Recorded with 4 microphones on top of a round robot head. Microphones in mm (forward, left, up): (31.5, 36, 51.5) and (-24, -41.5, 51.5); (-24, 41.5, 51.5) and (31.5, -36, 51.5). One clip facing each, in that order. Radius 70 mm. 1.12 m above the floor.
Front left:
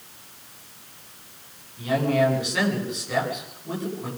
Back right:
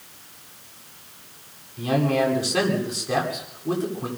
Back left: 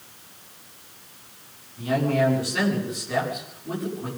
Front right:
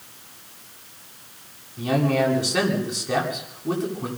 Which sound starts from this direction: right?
A man speaking, at 1.8 s.